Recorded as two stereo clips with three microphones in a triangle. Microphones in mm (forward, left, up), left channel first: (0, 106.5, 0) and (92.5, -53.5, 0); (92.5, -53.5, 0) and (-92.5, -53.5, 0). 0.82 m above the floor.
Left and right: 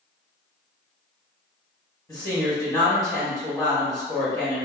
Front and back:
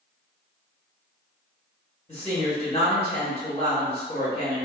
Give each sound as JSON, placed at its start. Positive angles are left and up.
{"t": 2.1, "sound": "a woman speaking", "azimuth_deg": 50, "distance_m": 1.4}